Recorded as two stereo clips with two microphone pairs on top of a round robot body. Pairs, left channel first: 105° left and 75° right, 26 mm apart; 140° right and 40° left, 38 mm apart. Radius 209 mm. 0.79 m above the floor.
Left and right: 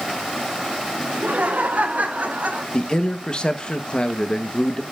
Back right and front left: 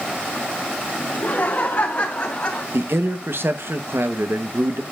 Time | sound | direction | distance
1.1 | laughter | 100° right | 3.5 m
2.7 | a man speaking | 45° left | 1.1 m